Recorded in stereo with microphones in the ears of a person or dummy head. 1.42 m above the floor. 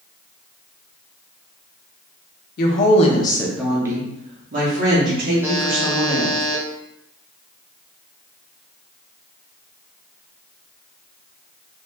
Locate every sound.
2.6 s a woman speaking: 55° left (ahead or behind), 0.7 m; by 6.4 s 65° right (ahead or behind), 1.6 m
5.4 s a buzzer: 15° right (ahead or behind), 0.6 m